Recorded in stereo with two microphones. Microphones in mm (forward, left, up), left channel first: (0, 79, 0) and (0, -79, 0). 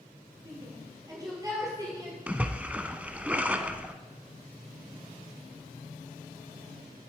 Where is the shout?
25° right (ahead or behind), 4 m.